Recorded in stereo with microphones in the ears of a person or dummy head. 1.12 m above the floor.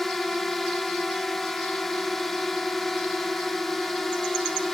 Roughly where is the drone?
Centre.